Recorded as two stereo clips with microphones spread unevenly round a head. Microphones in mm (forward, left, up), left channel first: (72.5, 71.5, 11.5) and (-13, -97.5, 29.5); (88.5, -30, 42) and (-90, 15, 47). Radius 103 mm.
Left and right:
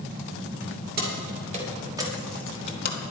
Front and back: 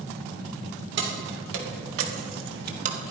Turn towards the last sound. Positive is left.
turn(degrees=105)